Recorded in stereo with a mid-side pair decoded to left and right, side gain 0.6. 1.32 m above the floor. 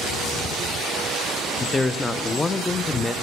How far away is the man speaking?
About 0.5 m.